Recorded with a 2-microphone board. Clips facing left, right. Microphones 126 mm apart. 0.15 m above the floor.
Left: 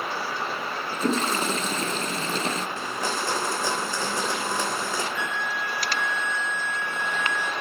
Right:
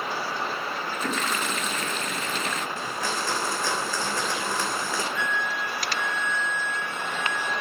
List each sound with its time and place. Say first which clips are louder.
0.9 s a toilet flushing: left 6 dB; 35° left (ahead or behind), 0.7 m
2.8 s a blender: left 1 dB; 20° left (ahead or behind), 2.5 m
5.2 s a flute: right 1 dB; 60° right (ahead or behind), 2 m